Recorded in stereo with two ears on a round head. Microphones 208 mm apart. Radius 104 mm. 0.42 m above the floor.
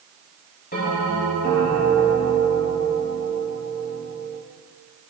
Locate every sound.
0.7 s a bell: 40° left (ahead or behind), 8 m